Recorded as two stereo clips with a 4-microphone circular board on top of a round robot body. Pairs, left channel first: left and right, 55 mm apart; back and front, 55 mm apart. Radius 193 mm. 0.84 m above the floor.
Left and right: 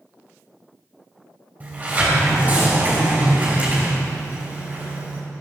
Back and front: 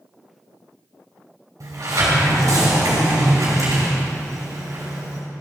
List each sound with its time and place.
1.6 s a sliding door: 30° right, 3 m